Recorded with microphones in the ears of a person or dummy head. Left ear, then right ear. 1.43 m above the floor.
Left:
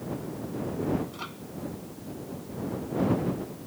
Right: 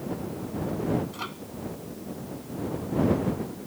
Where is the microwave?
10° right (ahead or behind).